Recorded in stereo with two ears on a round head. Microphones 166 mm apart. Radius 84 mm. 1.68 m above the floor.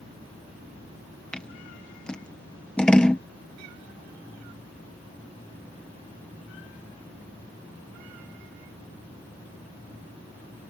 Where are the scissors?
5° left (ahead or behind).